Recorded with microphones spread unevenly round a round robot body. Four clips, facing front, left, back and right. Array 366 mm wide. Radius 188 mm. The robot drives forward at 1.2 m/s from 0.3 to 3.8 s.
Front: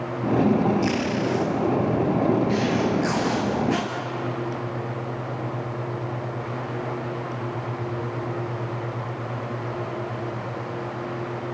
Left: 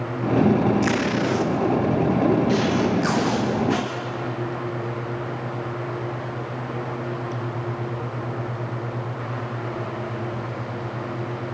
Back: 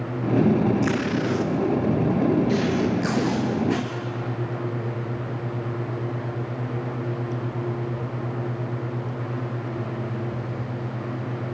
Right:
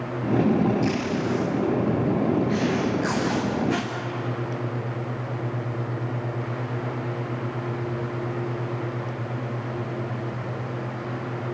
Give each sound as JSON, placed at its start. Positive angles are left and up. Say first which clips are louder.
{"t": 0.8, "sound": "tape being pulled", "louder": "left 3 dB, even", "azimuth_deg": 145, "distance_m": 1.1}